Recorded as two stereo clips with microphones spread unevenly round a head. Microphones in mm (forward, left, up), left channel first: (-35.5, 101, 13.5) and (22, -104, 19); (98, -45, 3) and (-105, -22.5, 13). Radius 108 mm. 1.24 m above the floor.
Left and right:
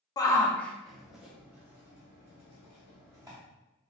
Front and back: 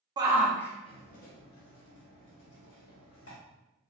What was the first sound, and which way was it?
A shout, 140° left.